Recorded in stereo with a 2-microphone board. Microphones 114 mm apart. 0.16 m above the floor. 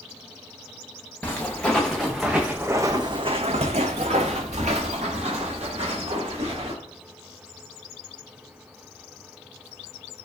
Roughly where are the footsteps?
Centre.